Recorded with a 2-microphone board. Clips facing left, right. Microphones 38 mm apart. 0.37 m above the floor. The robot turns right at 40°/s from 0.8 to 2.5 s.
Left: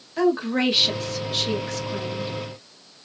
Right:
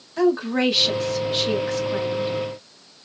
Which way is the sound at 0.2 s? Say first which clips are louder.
Right 1 dB; 175° left.